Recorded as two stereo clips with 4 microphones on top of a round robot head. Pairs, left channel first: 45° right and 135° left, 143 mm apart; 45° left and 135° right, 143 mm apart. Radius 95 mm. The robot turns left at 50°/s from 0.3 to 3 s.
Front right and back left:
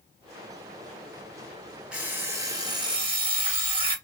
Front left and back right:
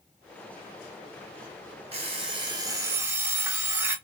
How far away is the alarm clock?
About 0.7 m.